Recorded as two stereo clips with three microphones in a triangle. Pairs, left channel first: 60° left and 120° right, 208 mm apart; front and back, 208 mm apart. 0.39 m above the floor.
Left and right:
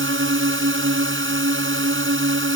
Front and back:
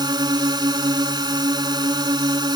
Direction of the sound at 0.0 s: 110° right.